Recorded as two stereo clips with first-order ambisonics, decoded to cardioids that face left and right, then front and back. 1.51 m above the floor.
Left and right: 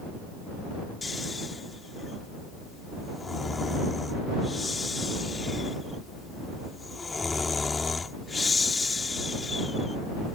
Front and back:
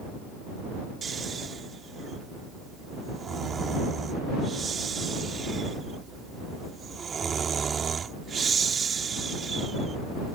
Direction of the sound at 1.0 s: 150° left.